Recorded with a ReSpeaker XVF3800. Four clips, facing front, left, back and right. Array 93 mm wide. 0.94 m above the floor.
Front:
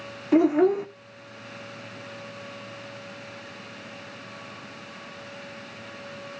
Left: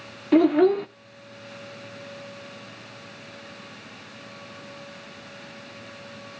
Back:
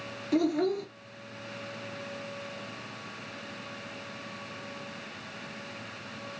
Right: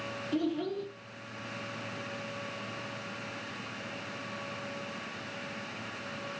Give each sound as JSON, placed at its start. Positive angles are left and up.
{"t": 0.3, "sound": "a child speaking", "azimuth_deg": 60, "distance_m": 0.7}